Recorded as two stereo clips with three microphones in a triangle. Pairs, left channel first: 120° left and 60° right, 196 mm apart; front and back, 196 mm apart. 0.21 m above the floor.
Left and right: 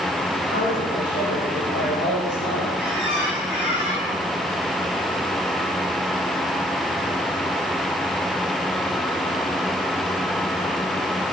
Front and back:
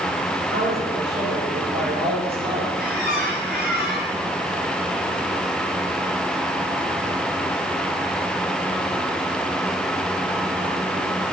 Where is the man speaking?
150° left, 8 m.